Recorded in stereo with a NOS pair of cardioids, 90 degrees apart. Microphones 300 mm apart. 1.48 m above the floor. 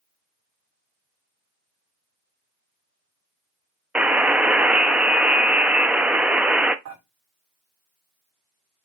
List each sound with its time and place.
4.0 s a buzzer: 5° right, 0.6 m
6.8 s dishes clattering: 65° right, 3 m